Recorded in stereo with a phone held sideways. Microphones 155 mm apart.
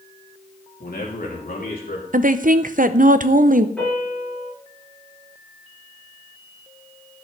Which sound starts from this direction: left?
A man speaking, at 0.8 s.